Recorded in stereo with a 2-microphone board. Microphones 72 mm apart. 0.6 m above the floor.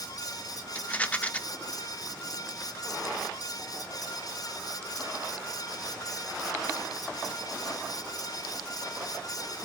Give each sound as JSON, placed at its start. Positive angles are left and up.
{"t": 0.8, "sound": "a rattle", "side_deg": 20, "distance_m": 0.5}